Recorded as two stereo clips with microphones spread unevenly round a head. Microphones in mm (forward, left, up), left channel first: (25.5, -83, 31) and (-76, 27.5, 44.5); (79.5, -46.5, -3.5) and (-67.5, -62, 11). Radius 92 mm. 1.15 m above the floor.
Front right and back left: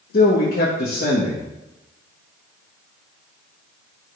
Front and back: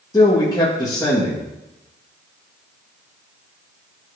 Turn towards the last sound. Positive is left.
turn(degrees=-60)